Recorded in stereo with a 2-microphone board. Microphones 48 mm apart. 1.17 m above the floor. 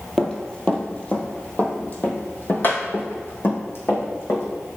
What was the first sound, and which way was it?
Running footsteps, 10° left (ahead or behind).